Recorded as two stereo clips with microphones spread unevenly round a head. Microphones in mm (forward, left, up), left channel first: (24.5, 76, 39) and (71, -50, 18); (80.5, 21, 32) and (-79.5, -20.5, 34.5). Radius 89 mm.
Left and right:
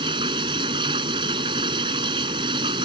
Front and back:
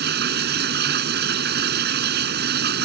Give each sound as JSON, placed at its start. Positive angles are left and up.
{"t": 0.0, "sound": "running water", "azimuth_deg": -135}